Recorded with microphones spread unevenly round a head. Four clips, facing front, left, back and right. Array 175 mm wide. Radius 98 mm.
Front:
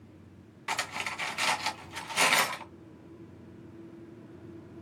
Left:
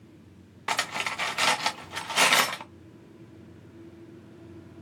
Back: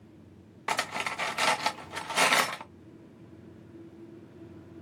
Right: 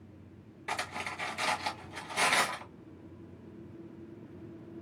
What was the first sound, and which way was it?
Cutlery clinking, 115° left.